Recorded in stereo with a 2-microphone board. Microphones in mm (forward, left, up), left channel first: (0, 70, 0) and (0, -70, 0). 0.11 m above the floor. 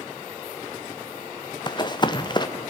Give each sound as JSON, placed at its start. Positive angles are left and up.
{"t": 1.7, "sound": "running footsteps", "side_deg": 30, "distance_m": 1.3}